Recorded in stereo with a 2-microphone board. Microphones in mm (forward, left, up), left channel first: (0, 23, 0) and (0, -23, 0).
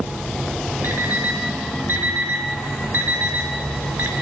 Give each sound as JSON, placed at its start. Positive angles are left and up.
{"t": 0.8, "sound": "an alarm clock", "side_deg": -55, "distance_m": 2.5}